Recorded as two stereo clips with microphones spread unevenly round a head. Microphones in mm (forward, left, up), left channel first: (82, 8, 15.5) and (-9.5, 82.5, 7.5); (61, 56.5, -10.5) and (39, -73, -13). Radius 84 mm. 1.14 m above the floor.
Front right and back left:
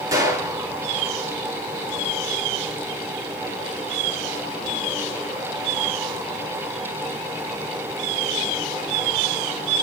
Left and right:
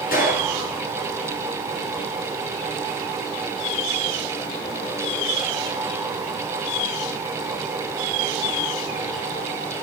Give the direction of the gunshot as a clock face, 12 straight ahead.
9 o'clock.